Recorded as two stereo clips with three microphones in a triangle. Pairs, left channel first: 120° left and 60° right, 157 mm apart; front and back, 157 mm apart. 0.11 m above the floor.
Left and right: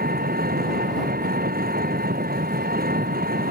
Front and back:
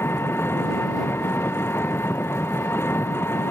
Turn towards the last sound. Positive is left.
turn(degrees=-75)